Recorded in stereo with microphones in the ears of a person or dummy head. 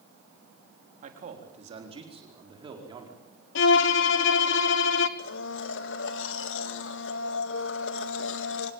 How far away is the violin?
About 1.1 m.